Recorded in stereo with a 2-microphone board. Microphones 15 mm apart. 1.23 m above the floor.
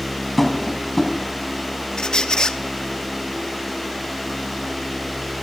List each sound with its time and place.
0.4 s tapping: 10° left (ahead or behind), 4.5 m
2.0 s a squeak: 55° left (ahead or behind), 1.0 m